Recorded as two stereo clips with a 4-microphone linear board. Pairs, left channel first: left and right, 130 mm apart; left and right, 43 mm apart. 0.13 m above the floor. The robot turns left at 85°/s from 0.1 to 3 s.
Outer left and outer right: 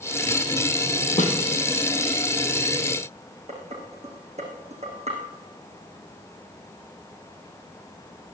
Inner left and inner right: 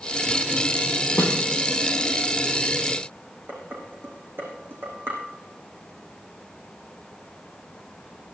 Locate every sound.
1.2 s a snare drum: 75° left (ahead or behind), 2.5 m; by 1.4 s 65° left (ahead or behind), 2.5 m
3.5 s dishes clattering: 60° right (ahead or behind), 4.5 m